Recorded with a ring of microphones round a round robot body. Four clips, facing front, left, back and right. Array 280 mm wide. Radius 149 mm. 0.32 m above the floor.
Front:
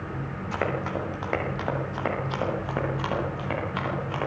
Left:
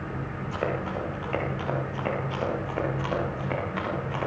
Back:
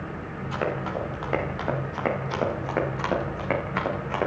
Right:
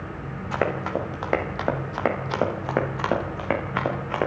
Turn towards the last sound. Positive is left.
turn(degrees=-105)